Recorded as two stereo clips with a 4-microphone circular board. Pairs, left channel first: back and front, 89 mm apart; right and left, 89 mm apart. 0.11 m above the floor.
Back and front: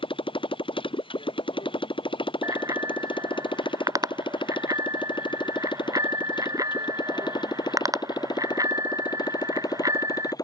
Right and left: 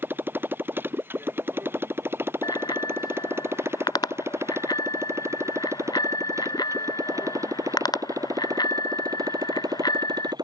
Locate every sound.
0.0 s a motorcycle: 160° left; by 10.4 s 130° left
2.4 s a bicycle bell: 50° right